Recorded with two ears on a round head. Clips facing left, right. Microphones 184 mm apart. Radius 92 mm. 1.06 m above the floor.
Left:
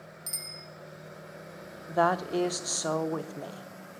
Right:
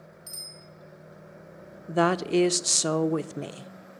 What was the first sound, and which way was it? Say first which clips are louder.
A bicycle bell: left 2 dB; 70° left (ahead or behind).